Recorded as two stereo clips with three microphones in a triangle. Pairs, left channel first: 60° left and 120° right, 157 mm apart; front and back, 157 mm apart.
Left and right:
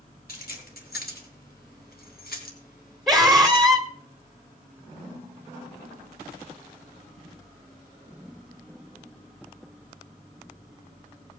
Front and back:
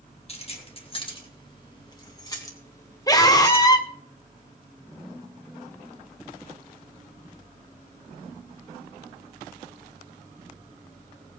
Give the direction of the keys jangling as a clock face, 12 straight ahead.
10 o'clock.